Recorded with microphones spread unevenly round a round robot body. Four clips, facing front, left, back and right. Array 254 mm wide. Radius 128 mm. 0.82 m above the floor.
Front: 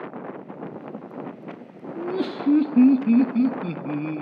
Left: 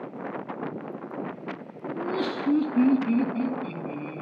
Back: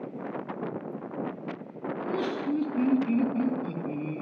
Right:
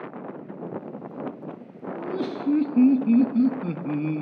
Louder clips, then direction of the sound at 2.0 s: Left 1 dB, front 4 dB; 15° left.